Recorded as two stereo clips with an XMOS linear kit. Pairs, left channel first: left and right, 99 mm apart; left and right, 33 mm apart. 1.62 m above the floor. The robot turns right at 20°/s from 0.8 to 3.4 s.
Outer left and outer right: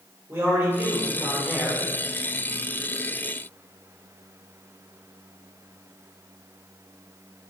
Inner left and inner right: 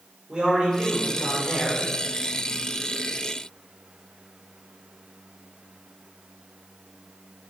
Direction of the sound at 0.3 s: 25° right (ahead or behind).